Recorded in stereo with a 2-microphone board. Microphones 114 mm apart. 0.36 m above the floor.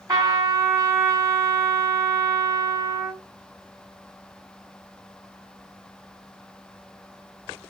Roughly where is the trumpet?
Right.